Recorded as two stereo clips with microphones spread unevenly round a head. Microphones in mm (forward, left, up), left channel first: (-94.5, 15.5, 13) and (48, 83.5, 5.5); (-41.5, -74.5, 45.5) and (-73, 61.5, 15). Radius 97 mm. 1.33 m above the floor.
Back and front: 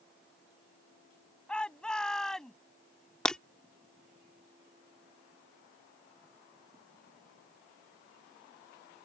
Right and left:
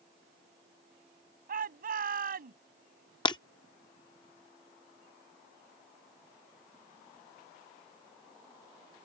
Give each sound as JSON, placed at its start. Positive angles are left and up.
{"t": 1.5, "sound": "a shout", "azimuth_deg": 120}
{"t": 3.2, "sound": "breaking glass", "azimuth_deg": -75}